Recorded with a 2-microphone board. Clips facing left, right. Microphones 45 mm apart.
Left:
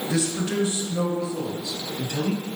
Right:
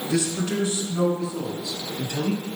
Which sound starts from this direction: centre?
A man speaking, at 0.1 s.